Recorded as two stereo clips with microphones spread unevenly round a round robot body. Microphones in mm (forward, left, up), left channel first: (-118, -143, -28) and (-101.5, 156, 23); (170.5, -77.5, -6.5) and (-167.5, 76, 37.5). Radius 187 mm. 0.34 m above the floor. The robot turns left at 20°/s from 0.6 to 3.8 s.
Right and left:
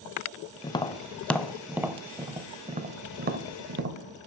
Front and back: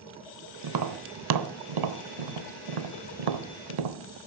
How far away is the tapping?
About 1.1 m.